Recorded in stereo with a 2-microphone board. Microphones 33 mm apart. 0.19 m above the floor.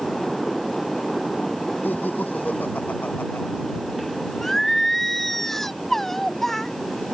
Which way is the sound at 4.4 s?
10° left (ahead or behind).